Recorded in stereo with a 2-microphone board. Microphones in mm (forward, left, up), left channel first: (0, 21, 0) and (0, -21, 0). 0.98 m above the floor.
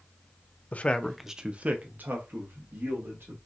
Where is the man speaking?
40° left (ahead or behind), 0.6 m; by 3.4 s 65° right (ahead or behind), 1.9 m.